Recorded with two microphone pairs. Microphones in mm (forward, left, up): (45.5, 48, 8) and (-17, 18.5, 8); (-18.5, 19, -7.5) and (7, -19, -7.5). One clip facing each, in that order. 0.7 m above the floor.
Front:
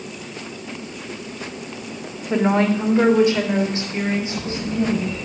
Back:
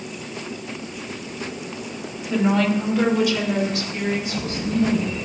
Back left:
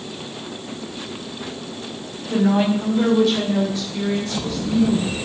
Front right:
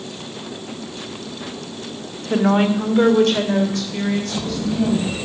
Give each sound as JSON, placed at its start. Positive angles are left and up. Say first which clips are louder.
{"t": 2.3, "sound": "a woman speaking", "louder": "front 2 dB, front right 1 dB", "azimuth_deg": -20, "distance_m": 1.7}